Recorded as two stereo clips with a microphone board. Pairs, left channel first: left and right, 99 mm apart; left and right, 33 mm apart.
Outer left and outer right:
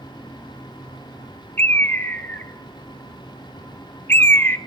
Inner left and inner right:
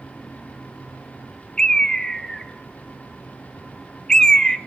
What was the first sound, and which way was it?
A bird, 20° left (ahead or behind).